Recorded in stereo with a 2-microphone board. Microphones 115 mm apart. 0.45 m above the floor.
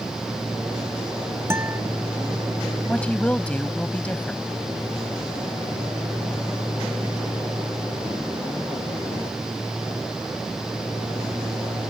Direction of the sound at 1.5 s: 20° right (ahead or behind).